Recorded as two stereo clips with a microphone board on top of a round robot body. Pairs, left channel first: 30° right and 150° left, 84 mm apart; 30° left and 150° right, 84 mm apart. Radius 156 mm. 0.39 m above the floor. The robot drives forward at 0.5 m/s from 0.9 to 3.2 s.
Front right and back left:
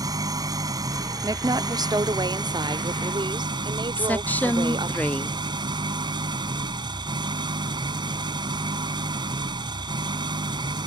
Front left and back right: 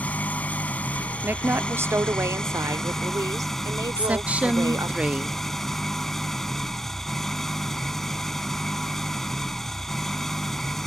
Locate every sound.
0.0 s an engine running: 105° left; by 10.9 s 115° left
1.2 s a woman speaking: 155° left; by 5.0 s 165° left
4.0 s a woman speaking: 85° right